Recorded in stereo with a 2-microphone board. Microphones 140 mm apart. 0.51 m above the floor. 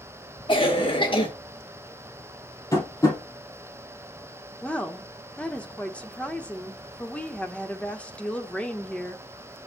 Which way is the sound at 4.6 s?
10° left (ahead or behind).